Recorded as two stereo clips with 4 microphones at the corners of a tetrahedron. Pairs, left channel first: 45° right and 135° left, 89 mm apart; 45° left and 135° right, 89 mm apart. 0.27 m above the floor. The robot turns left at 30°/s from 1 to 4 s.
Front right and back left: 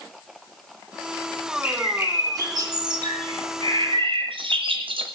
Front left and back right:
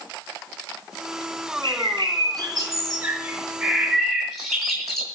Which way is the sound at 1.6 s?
155° right.